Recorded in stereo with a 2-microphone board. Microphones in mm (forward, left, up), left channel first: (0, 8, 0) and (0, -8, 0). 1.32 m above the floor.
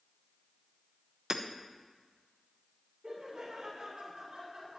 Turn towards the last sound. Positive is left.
turn(degrees=-30)  # may be behind; listen again after turning